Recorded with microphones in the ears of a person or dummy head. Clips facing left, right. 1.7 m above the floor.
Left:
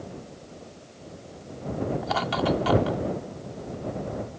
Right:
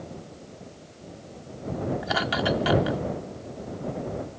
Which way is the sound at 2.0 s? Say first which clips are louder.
Left 2 dB; 20° right (ahead or behind).